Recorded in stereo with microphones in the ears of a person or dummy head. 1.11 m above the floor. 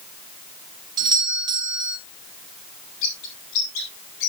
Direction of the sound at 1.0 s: 25° right (ahead or behind).